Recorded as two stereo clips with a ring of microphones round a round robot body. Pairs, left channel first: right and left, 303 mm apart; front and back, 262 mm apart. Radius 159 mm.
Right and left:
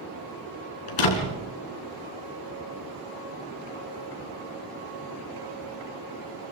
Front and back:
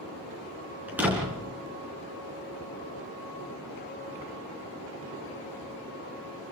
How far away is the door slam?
About 4 m.